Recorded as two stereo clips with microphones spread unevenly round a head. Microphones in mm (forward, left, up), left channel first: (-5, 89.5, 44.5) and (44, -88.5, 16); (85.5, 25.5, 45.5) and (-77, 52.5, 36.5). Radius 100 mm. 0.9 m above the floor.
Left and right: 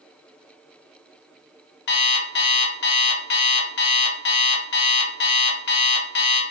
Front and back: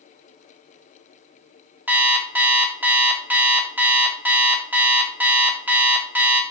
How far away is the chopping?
I don't hear chopping.